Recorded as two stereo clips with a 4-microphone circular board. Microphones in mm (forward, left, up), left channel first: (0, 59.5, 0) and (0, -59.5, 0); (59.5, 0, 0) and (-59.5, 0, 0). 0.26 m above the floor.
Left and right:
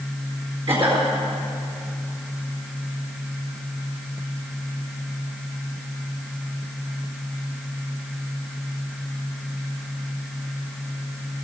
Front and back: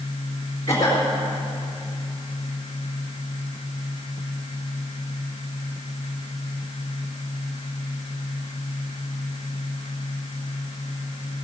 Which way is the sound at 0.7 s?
55° right.